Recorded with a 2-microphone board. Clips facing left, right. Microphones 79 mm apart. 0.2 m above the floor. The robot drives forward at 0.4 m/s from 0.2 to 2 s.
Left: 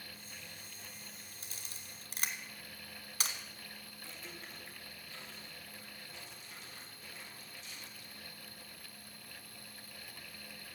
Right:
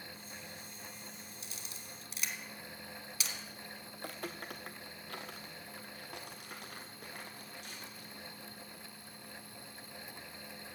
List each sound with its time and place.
1.4 s a camera shutter: 50° left (ahead or behind), 1.4 m
3.9 s footsteps: 65° right (ahead or behind), 1.0 m; by 8.3 s 60° right (ahead or behind), 3 m